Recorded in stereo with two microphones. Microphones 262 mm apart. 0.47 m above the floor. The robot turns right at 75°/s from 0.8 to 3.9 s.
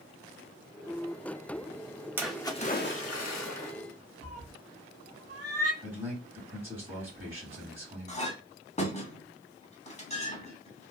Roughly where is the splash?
Ahead.